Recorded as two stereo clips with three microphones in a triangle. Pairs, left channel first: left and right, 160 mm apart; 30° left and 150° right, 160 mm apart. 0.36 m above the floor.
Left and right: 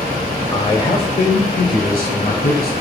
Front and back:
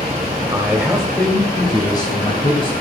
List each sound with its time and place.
0.5 s a man speaking: 145° left, 1.4 m; by 2.7 s 80° left, 2.5 m